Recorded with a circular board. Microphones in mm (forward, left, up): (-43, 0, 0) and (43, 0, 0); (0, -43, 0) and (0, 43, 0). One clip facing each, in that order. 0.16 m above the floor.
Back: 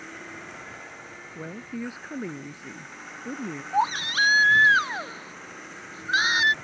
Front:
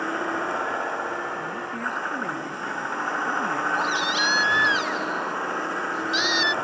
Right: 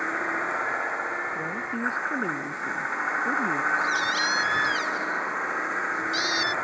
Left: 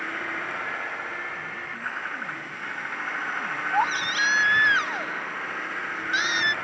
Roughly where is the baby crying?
Behind left.